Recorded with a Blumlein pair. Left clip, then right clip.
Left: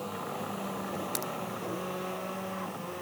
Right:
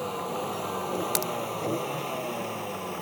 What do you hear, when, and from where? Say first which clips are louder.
0.0 s a vehicle: right 5 dB; 70° right; by 3.0 s 60° right
1.1 s a crack: right 6 dB; 65° right